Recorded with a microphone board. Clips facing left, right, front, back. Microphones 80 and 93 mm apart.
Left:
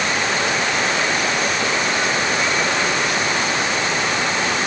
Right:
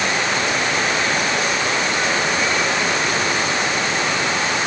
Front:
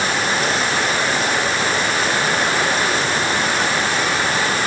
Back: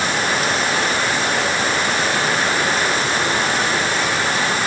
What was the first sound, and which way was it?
Only background noise.